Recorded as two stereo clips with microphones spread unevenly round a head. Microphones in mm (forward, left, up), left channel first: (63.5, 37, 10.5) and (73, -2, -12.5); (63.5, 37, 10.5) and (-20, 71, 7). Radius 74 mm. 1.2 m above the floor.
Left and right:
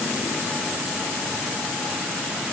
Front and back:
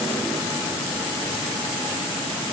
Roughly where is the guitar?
I don't hear a guitar.